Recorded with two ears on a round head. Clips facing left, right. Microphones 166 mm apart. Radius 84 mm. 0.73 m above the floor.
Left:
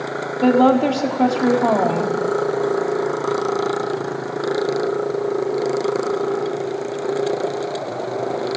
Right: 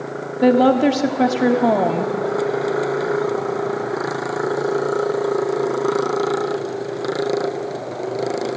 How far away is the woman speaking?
About 1.5 m.